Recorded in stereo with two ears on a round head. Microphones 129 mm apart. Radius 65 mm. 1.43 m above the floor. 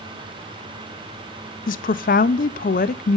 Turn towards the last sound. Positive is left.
turn(degrees=60)  # may be behind; listen again after turning